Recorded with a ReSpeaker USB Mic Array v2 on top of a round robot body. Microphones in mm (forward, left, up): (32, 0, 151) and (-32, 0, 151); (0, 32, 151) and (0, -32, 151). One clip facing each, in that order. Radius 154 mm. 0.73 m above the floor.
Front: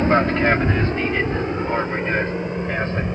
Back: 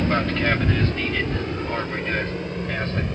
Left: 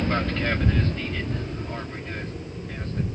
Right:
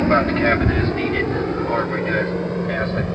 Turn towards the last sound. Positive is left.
turn(degrees=-70)